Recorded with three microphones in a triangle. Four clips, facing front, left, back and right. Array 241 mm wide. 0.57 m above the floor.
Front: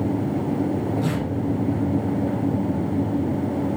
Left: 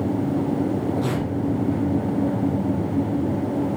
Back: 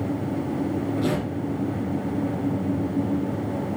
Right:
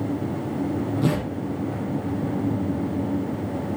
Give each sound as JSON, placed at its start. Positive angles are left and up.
{"t": 1.0, "sound": "tearing paper", "azimuth_deg": -100, "distance_m": 4.0}